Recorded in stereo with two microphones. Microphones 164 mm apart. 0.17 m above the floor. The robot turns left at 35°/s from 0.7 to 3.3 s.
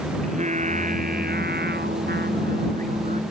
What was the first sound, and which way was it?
Singing, 50° right.